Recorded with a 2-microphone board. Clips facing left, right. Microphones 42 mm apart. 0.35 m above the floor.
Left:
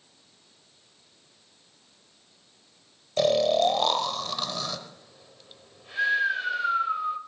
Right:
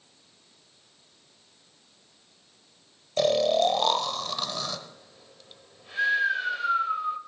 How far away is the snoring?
About 0.8 m.